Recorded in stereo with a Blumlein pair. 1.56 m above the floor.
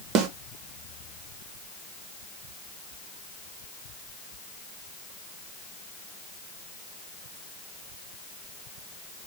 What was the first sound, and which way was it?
A snare drum, 35° right.